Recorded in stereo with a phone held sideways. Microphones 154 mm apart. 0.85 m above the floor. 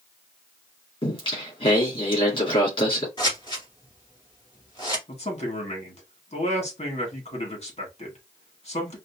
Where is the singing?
35° left (ahead or behind), 3 m.